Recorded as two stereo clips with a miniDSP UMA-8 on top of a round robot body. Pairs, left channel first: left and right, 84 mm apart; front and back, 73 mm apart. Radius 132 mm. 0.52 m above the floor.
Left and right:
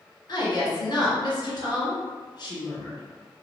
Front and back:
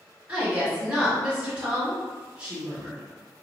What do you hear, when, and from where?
0.3 s a woman speaking: 110° left, 1.8 m